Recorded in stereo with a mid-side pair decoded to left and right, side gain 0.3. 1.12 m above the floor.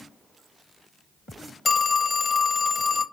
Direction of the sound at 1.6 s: 45° left.